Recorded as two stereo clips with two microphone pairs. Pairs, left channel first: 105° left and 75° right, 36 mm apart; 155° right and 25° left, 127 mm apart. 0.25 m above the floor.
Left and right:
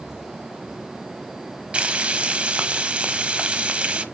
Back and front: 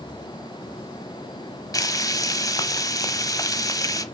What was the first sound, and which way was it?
Frying, 110° right.